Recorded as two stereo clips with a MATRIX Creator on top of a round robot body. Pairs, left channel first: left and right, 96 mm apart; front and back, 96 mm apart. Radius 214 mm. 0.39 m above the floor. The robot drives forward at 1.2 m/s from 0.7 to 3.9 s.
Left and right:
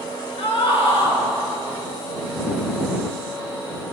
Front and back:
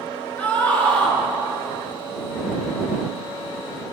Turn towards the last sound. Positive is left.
turn(degrees=100)